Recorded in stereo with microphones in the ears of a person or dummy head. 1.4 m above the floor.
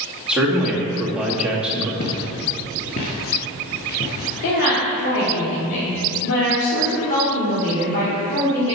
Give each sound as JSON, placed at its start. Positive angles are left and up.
{"t": 0.3, "sound": "a man speaking", "side_deg": -5, "distance_m": 2.5}
{"t": 2.0, "sound": "footsteps", "side_deg": 25, "distance_m": 1.6}
{"t": 4.4, "sound": "a woman speaking", "side_deg": 65, "distance_m": 3.0}